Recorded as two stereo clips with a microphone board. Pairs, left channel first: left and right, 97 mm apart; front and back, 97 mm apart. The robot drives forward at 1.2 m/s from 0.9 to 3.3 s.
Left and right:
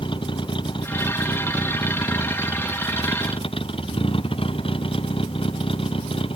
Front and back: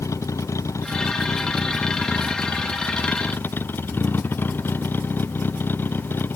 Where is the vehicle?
60° left; by 6.3 s 70° left.